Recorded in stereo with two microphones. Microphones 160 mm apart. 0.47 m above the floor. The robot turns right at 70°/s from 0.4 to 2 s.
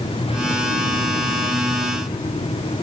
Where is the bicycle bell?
I don't hear a bicycle bell.